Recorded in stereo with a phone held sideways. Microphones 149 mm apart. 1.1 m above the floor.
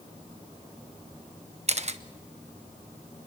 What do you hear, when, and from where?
1.7 s a camera shutter: 50° right (ahead or behind), 1.0 m